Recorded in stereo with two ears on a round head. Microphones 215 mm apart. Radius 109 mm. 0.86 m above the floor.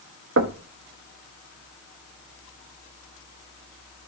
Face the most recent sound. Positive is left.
turn(degrees=-50)  # may be behind; listen again after turning